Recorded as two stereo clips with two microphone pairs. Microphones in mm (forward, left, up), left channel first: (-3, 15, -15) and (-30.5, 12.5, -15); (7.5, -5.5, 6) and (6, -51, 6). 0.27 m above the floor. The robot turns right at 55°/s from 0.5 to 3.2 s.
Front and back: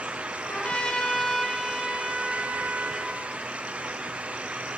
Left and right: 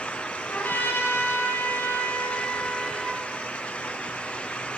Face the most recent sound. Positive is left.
turn(degrees=-170)